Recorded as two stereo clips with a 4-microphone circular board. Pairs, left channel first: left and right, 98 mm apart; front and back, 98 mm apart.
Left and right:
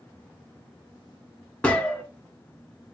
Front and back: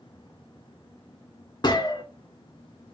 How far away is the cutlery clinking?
I don't hear cutlery clinking.